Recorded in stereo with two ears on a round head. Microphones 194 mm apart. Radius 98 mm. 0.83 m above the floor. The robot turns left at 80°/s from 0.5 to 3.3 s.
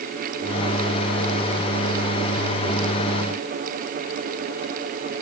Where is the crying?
No crying in this recording.